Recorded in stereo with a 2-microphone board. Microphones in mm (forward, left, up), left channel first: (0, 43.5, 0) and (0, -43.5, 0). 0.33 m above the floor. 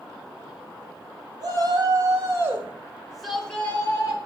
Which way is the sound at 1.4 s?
45° right (ahead or behind).